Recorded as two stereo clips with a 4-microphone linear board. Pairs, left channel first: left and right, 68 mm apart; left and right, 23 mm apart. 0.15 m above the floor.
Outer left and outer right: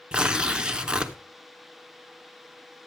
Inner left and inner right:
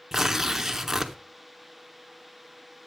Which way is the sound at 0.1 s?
15° right (ahead or behind).